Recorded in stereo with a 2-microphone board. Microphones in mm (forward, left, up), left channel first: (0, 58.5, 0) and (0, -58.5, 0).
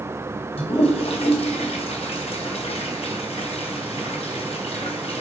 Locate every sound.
0.6 s a toilet flushing: 60° left (ahead or behind), 3 m